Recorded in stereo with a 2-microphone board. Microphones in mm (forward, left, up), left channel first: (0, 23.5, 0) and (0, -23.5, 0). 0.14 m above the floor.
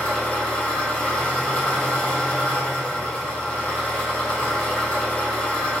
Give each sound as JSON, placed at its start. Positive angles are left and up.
{"t": 0.0, "sound": "an engine running", "side_deg": 25, "distance_m": 1.6}